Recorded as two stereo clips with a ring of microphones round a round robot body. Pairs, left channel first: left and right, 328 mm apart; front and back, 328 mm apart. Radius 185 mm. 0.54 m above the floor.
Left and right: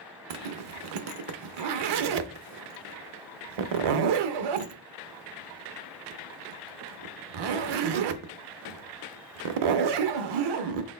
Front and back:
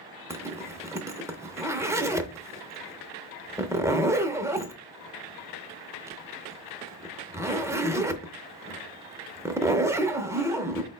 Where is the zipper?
95° right, 0.6 m.